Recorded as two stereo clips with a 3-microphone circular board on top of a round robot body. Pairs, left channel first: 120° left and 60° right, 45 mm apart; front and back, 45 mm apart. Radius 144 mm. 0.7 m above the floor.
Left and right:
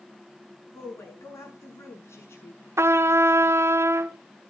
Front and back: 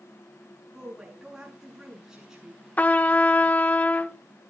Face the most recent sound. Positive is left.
turn(degrees=-55)